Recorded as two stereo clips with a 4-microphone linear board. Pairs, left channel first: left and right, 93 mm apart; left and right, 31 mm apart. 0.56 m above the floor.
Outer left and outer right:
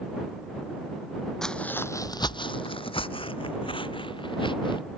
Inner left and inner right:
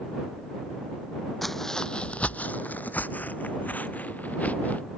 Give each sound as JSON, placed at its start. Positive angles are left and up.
{"t": 1.4, "sound": "footsteps", "side_deg": 5}